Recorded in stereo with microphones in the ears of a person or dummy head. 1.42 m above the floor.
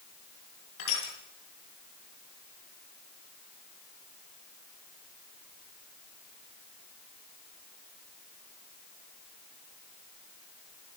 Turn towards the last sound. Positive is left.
turn(degrees=80)